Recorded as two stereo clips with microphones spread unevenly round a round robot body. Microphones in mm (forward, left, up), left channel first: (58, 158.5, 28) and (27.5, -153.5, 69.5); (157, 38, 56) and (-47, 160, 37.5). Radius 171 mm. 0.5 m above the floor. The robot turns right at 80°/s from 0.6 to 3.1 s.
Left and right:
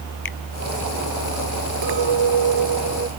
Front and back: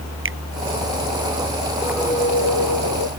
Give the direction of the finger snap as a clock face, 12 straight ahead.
8 o'clock.